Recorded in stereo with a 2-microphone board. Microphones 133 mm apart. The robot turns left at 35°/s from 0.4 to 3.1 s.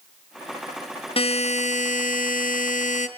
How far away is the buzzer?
About 1.1 m.